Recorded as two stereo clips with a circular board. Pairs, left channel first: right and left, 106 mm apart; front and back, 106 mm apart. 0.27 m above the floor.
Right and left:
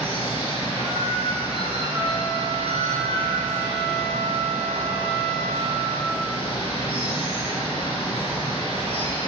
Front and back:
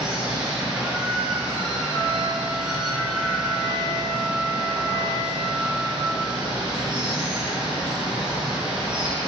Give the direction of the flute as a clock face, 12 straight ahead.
10 o'clock.